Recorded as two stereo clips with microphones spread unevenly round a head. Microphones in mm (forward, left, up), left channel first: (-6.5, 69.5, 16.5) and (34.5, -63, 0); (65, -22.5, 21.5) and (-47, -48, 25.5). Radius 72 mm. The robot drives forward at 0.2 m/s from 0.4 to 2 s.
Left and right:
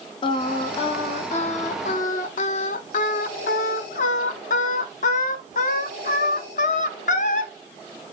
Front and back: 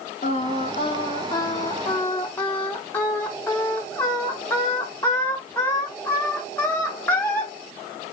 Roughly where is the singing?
Ahead left.